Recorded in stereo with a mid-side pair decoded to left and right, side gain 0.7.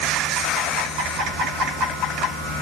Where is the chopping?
No chopping in this recording.